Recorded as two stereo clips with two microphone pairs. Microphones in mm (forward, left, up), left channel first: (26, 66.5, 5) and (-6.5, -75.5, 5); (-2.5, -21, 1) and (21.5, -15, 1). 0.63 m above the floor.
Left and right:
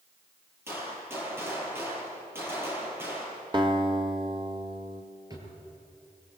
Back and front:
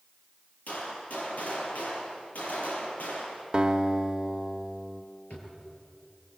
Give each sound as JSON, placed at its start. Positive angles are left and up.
{"t": 0.7, "sound": "a gunshot", "azimuth_deg": -175, "distance_m": 6.5}
{"t": 3.5, "sound": "a guitar", "azimuth_deg": -50, "distance_m": 1.3}
{"t": 5.3, "sound": "a drawer", "azimuth_deg": -170, "distance_m": 5.5}